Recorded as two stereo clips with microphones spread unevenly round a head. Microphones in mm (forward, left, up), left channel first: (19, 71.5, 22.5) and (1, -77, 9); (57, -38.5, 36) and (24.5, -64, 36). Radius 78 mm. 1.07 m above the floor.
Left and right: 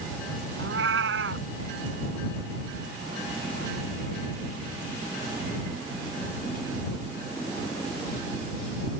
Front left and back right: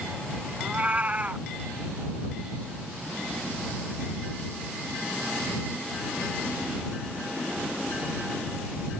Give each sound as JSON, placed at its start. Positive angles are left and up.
{"t": 0.6, "sound": "a cat meowing", "azimuth_deg": -90}